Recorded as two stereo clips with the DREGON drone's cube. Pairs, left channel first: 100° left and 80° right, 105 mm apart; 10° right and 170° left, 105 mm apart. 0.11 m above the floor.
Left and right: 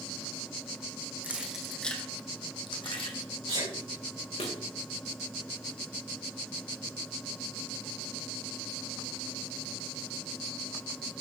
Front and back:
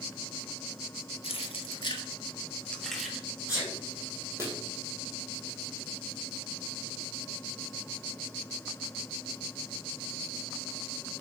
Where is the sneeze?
70° right, 5.5 m.